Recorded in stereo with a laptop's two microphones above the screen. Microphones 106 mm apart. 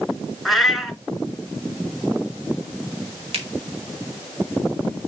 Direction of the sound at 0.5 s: Centre (ahead or behind).